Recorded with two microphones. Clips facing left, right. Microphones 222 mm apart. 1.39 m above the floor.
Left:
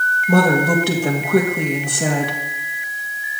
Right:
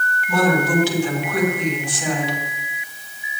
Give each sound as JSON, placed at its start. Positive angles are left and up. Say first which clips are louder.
{"t": 0.3, "sound": "a woman speaking", "louder": "left 3 dB", "side_deg": 60, "distance_m": 2.0}